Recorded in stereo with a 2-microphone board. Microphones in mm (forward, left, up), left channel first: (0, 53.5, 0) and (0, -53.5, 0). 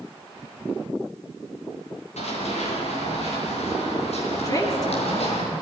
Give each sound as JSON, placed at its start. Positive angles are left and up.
{"t": 2.2, "sound": "running footsteps", "side_deg": 85, "distance_m": 8.5}
{"t": 4.4, "sound": "a woman speaking", "side_deg": 35, "distance_m": 4.0}